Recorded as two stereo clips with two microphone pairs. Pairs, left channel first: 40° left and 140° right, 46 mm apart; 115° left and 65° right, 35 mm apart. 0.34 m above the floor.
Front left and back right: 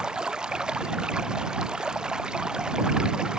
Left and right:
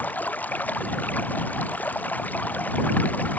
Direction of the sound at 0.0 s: 150° left.